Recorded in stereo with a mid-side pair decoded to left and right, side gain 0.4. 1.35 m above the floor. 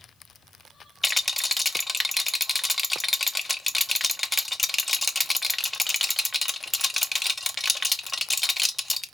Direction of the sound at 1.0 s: 15° left.